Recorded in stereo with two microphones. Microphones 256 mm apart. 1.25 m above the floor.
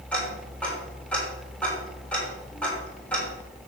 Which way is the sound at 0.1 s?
5° left (ahead or behind).